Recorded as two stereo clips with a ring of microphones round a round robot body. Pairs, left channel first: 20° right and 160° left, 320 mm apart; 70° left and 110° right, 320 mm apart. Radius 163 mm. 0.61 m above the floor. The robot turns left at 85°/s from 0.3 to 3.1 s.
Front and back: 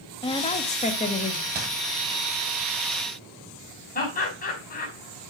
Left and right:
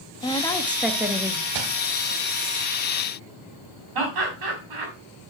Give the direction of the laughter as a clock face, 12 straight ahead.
3 o'clock.